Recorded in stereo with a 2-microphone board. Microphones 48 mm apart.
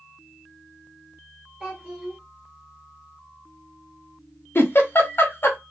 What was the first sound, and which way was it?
A child speaking, 20° right (ahead or behind).